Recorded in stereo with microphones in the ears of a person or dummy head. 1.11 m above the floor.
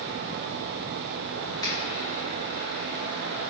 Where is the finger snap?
20° left (ahead or behind), 2 m.